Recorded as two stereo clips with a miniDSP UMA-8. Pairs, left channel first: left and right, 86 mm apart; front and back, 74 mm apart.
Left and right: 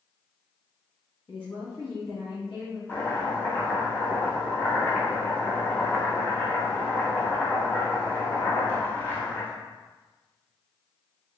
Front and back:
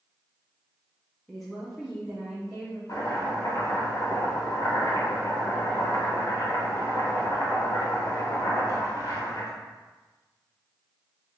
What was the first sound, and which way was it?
A woman speaking, 85° left.